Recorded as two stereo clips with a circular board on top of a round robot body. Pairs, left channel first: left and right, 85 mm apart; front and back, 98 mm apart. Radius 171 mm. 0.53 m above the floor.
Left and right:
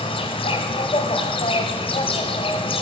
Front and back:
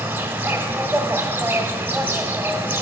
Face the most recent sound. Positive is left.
turn(degrees=105)